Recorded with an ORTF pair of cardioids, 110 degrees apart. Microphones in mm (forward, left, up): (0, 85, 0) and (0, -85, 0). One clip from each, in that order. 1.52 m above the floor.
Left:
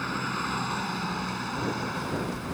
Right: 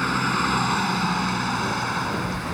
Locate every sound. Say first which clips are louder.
0.0 s a vehicle: right 8 dB; 40° right